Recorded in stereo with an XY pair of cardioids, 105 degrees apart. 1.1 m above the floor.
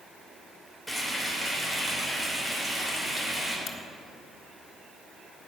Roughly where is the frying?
Ahead.